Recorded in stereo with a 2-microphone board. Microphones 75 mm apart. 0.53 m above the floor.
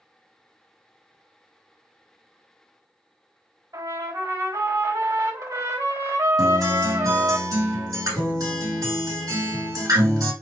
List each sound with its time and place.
3.7 s a trumpet: 65° right (ahead or behind), 2.5 m
6.4 s a guitar: 65° right (ahead or behind), 3 m